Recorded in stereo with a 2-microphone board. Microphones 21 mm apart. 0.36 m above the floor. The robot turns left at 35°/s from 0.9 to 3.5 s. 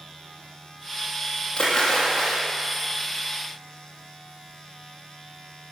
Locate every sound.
1.6 s a splash: 45° left, 3.5 m; by 2.4 s 15° left, 3.5 m